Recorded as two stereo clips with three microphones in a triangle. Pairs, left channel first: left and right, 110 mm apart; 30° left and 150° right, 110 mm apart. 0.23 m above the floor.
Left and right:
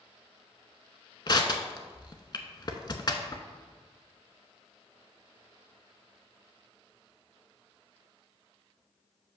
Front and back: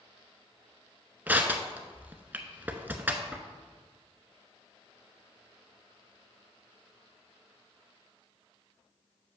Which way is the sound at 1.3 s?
140° left.